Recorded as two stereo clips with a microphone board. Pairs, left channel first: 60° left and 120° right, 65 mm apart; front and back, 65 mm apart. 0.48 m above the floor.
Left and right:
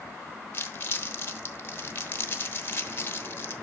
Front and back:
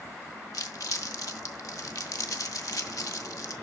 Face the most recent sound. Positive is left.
turn(degrees=10)